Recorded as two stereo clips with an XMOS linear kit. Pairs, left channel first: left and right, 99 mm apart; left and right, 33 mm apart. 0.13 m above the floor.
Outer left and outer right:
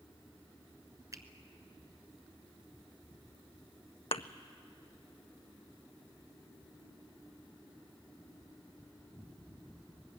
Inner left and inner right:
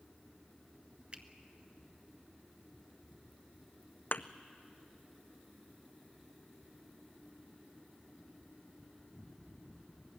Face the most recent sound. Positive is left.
turn(degrees=80)